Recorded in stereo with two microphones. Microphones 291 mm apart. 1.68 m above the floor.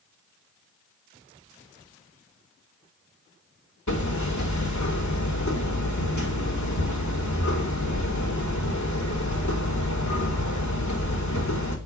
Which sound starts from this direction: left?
Hammering, at 3.9 s.